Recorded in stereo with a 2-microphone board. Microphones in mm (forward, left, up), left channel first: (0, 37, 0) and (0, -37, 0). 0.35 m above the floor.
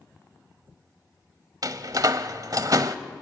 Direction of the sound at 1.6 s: 55° right (ahead or behind).